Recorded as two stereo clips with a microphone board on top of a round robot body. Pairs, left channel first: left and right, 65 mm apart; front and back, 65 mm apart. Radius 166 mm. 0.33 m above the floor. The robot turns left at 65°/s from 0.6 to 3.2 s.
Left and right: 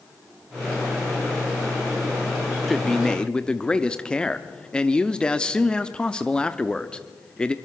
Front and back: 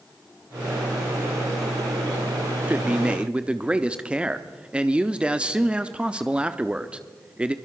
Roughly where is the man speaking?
Behind.